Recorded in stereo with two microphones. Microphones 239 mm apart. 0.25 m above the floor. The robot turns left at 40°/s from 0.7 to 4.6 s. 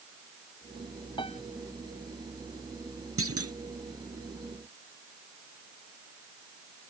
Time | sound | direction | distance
1.2 | a piano | 20° left (ahead or behind) | ?
3.2 | a clunk | 60° right (ahead or behind) | ?